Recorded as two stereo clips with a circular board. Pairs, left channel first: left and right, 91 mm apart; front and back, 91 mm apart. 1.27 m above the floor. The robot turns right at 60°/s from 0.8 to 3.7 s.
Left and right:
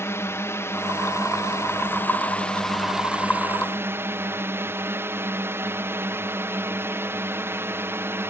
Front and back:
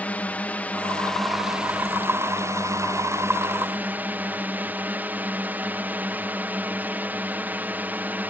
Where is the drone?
60° left; by 8.3 s 125° right.